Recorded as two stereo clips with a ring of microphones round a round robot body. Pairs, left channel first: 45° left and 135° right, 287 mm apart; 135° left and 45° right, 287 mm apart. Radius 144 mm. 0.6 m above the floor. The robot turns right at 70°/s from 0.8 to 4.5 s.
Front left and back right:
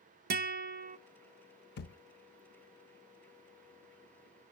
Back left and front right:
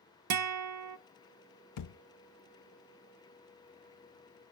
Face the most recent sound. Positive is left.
turn(degrees=-70)